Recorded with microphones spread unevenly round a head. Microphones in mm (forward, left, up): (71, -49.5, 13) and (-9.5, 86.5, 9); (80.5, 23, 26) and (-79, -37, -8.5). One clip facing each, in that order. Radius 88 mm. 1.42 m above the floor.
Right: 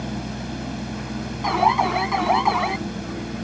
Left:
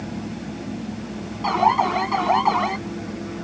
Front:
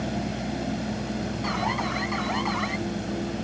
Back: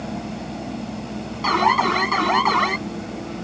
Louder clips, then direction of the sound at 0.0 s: Even, even; 50° right.